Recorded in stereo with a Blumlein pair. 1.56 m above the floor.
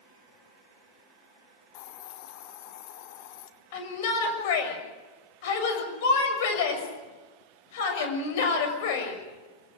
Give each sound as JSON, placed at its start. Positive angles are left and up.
{"t": 1.7, "sound": "a hiss", "azimuth_deg": 45, "distance_m": 1.5}
{"t": 3.7, "sound": "a shout", "azimuth_deg": 50, "distance_m": 6.5}